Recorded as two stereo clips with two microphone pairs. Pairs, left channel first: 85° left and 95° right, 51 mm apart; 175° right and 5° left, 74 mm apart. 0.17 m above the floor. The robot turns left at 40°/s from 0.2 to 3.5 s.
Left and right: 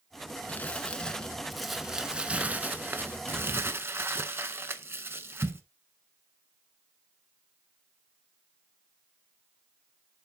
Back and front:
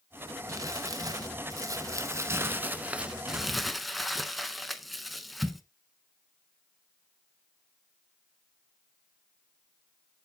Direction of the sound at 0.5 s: 35° left.